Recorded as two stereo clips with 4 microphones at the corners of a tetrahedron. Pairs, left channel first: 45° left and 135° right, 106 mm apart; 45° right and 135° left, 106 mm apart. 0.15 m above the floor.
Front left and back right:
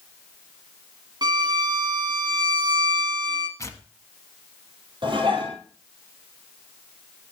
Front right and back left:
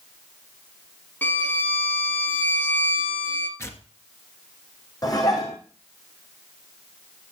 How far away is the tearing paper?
About 1.3 m.